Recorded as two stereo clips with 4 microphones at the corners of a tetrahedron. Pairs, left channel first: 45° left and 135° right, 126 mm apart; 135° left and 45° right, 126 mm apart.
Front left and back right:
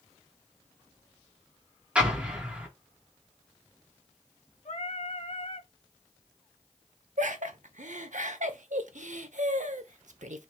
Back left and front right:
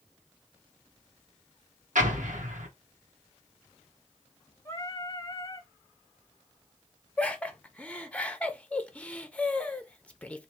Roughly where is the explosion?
Ahead right.